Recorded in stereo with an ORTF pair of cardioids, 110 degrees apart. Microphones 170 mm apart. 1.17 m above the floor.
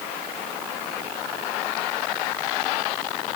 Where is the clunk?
No clunk in this recording.